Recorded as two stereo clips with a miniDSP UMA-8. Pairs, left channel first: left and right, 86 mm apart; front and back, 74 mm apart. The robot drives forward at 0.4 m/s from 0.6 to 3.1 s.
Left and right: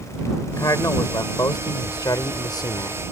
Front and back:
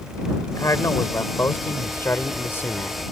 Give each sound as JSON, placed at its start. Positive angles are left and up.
{"t": 0.5, "sound": "a man speaking", "azimuth_deg": 45}